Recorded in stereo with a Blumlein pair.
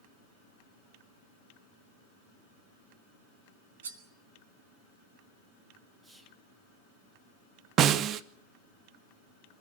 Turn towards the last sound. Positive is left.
turn(degrees=-30)